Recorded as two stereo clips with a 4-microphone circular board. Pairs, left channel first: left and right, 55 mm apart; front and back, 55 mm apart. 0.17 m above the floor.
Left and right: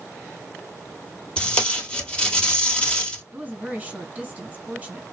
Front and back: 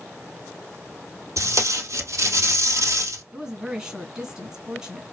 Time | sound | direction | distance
1.4 | tape being pulled | 165° left | 1.8 m
3.3 | a woman speaking | 125° right | 1.3 m